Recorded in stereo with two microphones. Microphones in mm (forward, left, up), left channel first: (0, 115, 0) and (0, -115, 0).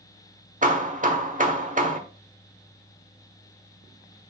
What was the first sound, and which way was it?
Hammering, 35° right (ahead or behind).